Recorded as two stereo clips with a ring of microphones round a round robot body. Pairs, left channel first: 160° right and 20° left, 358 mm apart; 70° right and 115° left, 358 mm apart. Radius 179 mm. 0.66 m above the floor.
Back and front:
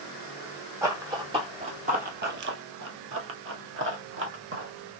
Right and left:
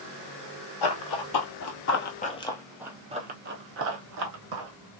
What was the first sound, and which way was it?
Running footsteps, 60° right.